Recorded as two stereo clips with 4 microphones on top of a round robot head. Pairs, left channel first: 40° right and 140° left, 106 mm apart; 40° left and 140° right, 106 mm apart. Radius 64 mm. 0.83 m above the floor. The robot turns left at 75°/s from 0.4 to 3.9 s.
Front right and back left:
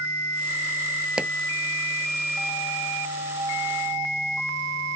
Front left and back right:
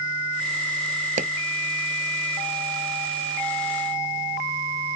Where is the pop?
140° right; by 1.3 s 150° right.